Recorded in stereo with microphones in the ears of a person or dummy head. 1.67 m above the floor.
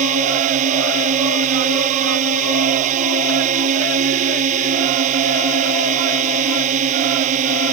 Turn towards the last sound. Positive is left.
turn(degrees=-45)  # may be behind; listen again after turning